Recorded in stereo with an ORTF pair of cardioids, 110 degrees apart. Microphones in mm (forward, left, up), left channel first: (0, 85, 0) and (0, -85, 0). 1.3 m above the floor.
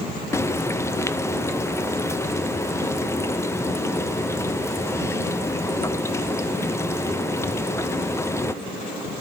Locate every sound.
0.3 s frying: 15° left, 0.9 m